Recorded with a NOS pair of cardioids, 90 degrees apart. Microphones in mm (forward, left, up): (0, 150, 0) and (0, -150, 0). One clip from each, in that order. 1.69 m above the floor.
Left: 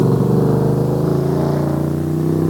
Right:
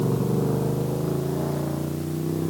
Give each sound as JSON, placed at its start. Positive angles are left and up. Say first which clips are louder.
{"t": 0.0, "sound": "a motorcycle", "louder": "left 9 dB", "azimuth_deg": 60}